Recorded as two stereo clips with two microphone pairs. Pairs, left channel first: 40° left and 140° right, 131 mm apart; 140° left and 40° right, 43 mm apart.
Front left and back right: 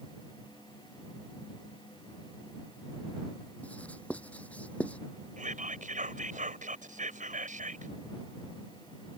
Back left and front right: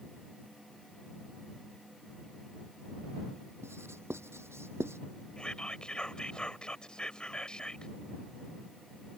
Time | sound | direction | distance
3.6 | writing | 40° right | ?
5.4 | whispering | 155° right | ?